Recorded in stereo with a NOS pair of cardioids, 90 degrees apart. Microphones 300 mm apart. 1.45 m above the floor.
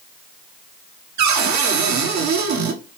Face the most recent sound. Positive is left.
turn(degrees=-65)